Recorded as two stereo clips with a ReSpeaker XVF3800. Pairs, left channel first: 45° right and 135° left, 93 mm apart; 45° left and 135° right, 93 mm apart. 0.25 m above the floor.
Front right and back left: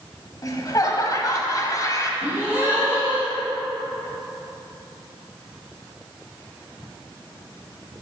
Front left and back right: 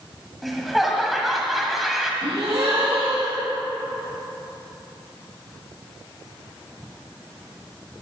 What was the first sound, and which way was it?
Laughter, 45° right.